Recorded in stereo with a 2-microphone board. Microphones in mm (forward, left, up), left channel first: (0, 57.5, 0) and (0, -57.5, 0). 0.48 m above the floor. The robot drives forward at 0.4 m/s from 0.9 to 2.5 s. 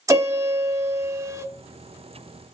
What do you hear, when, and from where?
0.1 s a piano: 30° right (ahead or behind), 0.9 m; by 1.5 s 25° right (ahead or behind), 1.0 m